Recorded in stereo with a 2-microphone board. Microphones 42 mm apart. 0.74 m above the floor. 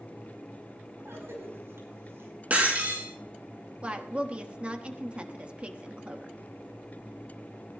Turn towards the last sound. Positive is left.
turn(degrees=-30)  # may be behind; listen again after turning